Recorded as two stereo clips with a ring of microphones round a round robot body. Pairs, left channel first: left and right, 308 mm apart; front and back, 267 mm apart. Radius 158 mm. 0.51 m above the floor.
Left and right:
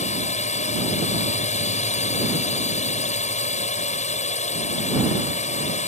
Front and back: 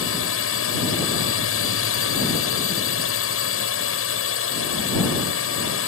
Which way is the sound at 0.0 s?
25° left.